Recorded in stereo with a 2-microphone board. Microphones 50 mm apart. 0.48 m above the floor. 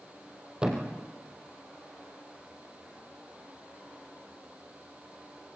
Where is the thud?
20° right (ahead or behind), 4.5 m.